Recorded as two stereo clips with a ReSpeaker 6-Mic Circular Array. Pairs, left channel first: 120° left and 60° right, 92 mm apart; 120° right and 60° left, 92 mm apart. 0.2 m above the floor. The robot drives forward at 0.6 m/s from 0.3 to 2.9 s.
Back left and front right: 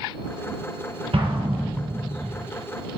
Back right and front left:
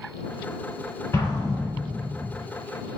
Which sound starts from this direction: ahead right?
An explosion, at 1.1 s.